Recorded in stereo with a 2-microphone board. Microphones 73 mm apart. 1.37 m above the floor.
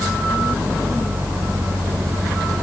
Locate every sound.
Only background noise.